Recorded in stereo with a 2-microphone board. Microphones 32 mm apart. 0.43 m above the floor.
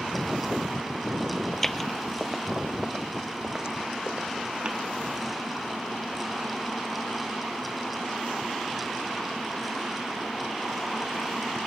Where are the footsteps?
15° left (ahead or behind); by 4.8 s 35° right (ahead or behind).